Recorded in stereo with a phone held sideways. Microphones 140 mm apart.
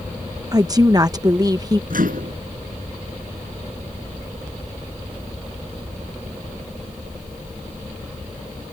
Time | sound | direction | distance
0.5 | a woman speaking | 25° right (ahead or behind) | ?
1.9 | a microwave | 75° right (ahead or behind) | ?